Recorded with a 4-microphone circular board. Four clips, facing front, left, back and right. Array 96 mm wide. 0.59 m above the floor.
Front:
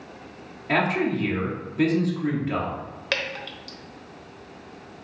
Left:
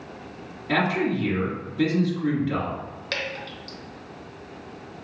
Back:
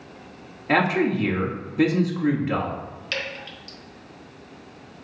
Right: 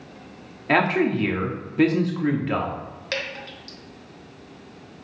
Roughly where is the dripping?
Ahead.